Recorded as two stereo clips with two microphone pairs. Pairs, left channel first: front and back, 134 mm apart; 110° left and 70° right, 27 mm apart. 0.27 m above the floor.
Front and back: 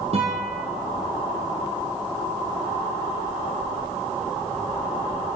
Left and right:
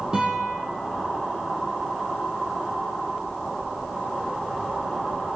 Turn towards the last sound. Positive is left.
turn(degrees=-135)